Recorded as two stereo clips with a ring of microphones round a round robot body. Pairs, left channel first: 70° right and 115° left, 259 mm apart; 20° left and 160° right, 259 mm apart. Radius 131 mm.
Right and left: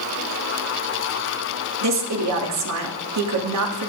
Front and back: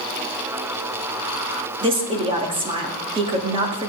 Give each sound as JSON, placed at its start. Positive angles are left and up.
{"t": 1.8, "sound": "a woman speaking", "azimuth_deg": 130, "distance_m": 1.8}